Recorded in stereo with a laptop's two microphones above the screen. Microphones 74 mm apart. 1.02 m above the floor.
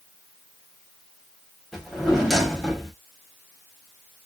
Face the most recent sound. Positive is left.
turn(degrees=-5)  # may be behind; listen again after turning